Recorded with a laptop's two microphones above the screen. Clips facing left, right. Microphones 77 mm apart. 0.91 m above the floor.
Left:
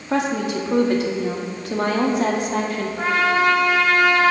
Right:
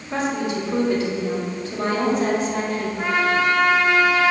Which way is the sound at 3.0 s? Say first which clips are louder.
Left 2 dB; 70° left (ahead or behind).